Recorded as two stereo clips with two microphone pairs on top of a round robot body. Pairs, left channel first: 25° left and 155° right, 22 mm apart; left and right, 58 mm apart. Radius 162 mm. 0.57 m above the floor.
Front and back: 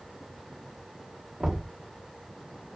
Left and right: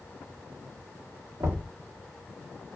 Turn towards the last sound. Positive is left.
turn(degrees=-110)